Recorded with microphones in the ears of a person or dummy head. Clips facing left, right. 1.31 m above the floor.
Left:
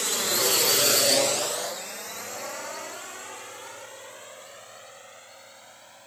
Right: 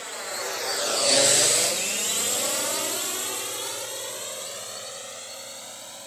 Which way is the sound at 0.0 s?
60° left (ahead or behind).